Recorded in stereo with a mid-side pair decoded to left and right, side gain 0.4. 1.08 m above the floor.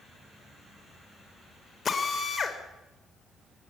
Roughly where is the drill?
Ahead left.